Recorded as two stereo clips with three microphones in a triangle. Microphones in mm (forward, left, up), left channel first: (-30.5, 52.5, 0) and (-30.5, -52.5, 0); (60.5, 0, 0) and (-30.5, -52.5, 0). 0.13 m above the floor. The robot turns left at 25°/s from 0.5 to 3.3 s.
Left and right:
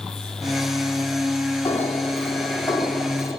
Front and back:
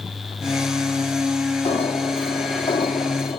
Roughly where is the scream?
I don't hear a scream.